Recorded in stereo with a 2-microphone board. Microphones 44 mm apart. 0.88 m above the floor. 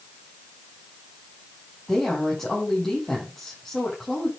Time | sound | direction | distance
1.9 | a woman speaking | 10° left (ahead or behind) | 6 m